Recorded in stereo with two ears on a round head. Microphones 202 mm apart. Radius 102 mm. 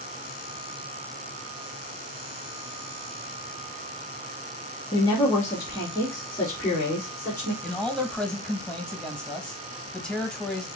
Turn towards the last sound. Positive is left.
turn(degrees=5)  # may be behind; listen again after turning